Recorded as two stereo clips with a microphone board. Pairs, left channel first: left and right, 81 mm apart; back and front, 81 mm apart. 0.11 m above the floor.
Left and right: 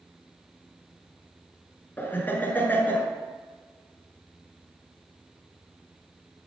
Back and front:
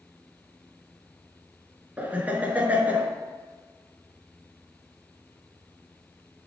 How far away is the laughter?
About 1.2 m.